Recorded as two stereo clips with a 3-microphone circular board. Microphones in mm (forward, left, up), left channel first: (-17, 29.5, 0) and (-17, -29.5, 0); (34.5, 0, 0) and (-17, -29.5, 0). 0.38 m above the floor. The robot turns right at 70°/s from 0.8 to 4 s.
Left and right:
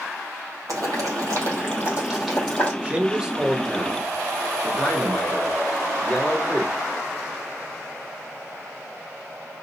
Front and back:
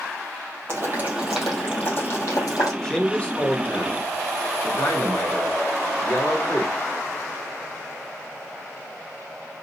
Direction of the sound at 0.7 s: 100° right.